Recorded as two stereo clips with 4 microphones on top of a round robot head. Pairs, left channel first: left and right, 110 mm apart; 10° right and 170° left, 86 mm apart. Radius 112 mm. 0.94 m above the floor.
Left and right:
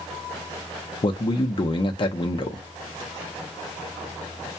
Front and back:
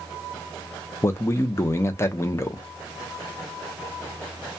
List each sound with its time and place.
1.0 s a man speaking: 50° left, 0.7 m